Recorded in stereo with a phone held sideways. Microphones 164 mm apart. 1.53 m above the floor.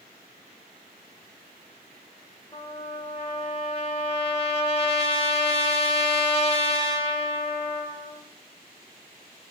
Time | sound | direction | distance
2.5 | a trumpet | 35° left (ahead or behind) | 1.3 m